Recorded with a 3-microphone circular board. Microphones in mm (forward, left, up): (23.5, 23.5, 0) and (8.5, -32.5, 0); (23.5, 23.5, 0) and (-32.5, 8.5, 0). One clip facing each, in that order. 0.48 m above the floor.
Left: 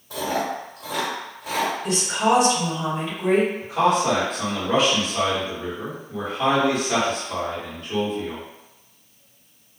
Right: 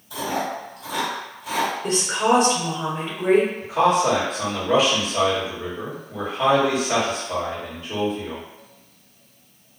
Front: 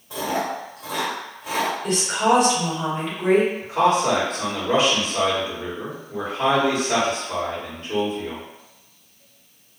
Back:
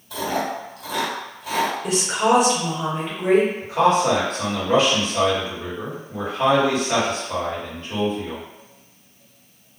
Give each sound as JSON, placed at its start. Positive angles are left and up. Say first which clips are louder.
{"t": 0.1, "sound": "chewing", "louder": "left 1 dB, even", "azimuth_deg": 60, "distance_m": 1.8}
{"t": 1.8, "sound": "a woman speaking", "louder": "right 1 dB, front 1 dB", "azimuth_deg": -75, "distance_m": 1.9}
{"t": 3.6, "sound": "a man speaking", "louder": "right 1 dB, back 1 dB", "azimuth_deg": -20, "distance_m": 1.9}